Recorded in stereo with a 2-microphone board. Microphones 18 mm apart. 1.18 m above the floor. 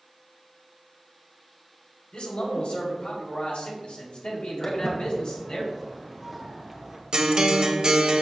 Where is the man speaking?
65° left (ahead or behind), 4.5 m; by 5.6 s 55° left (ahead or behind), 4.5 m.